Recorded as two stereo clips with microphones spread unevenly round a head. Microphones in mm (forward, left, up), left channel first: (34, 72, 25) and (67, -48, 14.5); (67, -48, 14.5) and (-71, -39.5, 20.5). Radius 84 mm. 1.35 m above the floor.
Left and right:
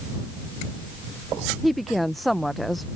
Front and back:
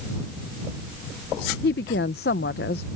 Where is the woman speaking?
20° left.